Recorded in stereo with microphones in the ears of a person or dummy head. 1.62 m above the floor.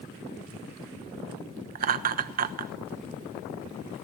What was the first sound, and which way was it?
Laughter, 50° right (ahead or behind).